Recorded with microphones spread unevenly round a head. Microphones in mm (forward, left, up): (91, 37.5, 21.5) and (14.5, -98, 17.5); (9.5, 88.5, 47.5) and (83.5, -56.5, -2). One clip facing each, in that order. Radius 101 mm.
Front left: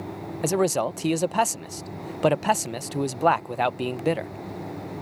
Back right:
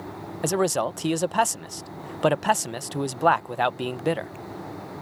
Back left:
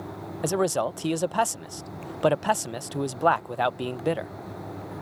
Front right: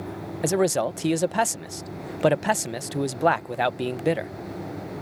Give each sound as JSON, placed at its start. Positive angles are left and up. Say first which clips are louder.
{"t": 0.4, "sound": "a man speaking", "louder": "front left 1 dB, front right 3 dB", "azimuth_deg": -20}